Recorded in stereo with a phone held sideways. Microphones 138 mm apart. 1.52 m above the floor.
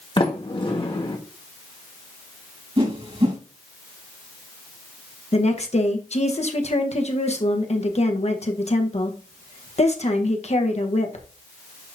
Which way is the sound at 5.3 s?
55° left (ahead or behind).